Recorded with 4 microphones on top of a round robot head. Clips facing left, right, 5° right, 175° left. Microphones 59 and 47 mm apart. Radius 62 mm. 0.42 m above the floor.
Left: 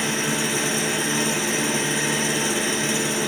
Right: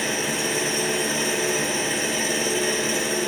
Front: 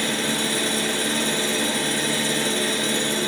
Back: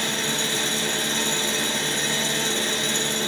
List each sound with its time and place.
0.0 s an engine running: 80° left, 2.0 m